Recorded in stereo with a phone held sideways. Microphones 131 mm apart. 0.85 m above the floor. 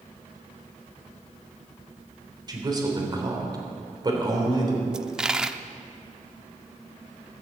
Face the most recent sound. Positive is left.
turn(degrees=-5)  # may be behind; listen again after turning